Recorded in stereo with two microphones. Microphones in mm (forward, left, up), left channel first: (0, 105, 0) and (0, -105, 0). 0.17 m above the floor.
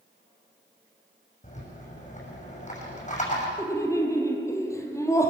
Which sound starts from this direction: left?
A rattle, at 1.4 s.